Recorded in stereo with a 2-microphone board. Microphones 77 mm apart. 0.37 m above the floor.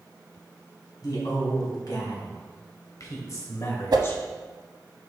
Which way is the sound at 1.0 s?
60° left (ahead or behind).